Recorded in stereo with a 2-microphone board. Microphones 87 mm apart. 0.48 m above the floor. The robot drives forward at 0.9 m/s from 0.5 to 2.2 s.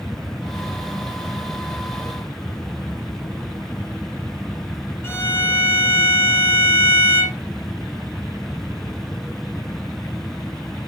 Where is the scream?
No scream in this recording.